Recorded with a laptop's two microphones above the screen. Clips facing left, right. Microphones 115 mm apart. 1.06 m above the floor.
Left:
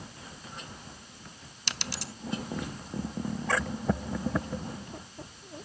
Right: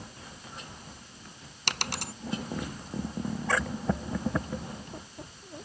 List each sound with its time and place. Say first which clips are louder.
1.7 s a dropped coin: right 4 dB; 55° right (ahead or behind)